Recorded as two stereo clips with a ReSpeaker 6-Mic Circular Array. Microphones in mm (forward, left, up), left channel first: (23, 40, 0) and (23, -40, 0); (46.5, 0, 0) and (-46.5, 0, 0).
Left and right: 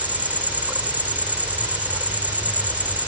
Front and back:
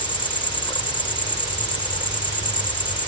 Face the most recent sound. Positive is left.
turn(degrees=-20)